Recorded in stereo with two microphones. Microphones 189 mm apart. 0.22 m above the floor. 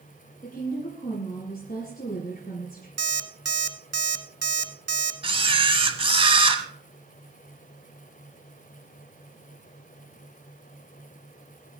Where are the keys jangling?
I don't hear keys jangling.